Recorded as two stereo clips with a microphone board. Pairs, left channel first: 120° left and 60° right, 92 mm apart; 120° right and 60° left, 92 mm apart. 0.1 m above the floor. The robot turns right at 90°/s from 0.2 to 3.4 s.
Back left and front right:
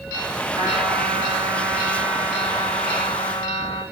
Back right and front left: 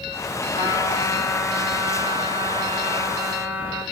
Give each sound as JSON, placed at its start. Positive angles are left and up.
{"t": 0.5, "sound": "a trumpet", "azimuth_deg": -115, "distance_m": 9.0}